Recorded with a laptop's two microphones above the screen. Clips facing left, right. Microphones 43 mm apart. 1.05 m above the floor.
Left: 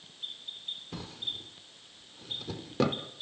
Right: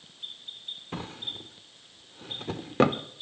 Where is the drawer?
40° right (ahead or behind), 0.9 m.